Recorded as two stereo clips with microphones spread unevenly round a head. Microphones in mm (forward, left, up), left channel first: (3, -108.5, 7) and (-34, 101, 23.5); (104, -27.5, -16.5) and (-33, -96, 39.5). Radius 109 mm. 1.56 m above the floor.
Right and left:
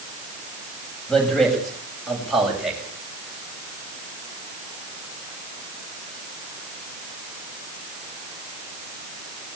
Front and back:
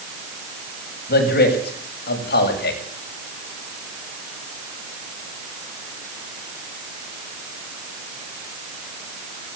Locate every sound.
1.1 s a man speaking: 5° left, 8.5 m; by 2.8 s 15° left, 7.5 m